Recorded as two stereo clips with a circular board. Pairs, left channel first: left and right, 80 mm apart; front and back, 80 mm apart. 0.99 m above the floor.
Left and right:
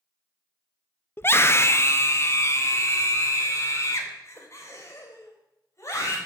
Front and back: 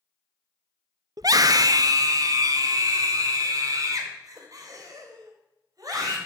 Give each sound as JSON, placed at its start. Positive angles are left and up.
{"t": 1.2, "sound": "a scream", "azimuth_deg": 145, "distance_m": 0.8}